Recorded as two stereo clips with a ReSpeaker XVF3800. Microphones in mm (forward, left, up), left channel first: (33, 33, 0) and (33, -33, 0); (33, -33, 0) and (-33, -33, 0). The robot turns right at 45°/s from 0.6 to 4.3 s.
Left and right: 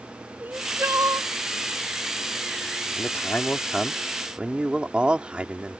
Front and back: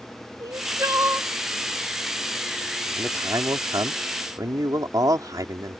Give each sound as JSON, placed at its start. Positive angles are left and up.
{"t": 0.4, "sound": "crying", "azimuth_deg": -150}
{"t": 3.0, "sound": "a man speaking", "azimuth_deg": 135}